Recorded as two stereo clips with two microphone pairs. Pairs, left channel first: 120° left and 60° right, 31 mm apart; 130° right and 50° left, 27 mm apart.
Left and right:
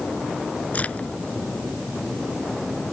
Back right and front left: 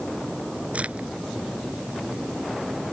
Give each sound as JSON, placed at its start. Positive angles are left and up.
{"t": 0.7, "sound": "a crack", "azimuth_deg": 85}